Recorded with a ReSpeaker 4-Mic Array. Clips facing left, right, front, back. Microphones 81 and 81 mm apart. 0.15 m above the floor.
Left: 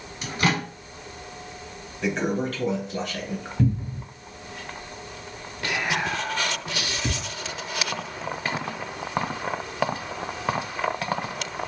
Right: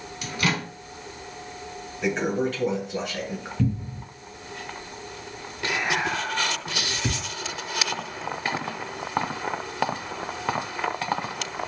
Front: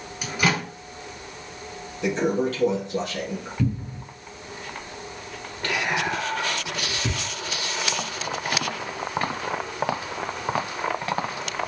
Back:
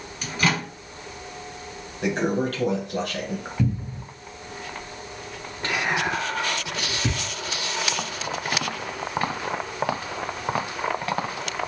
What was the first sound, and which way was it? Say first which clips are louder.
A microwave: left 2 dB, front 1 dB; 70° left.